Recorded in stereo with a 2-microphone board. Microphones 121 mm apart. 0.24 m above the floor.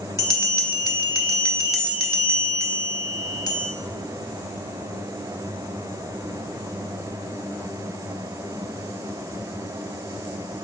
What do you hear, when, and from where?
0.2 s a bell: 30° left (ahead or behind), 0.5 m